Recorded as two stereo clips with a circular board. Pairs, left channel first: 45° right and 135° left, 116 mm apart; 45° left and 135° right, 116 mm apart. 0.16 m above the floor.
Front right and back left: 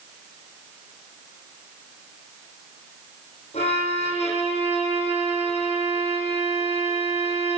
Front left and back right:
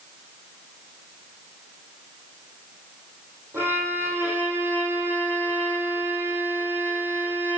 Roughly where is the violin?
Ahead right.